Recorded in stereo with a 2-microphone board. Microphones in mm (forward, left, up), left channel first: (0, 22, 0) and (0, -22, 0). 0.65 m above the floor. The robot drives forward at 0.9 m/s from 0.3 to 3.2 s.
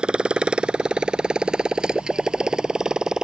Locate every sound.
0.0 s a motorcycle: 20° right (ahead or behind); by 3.2 s 10° right (ahead or behind)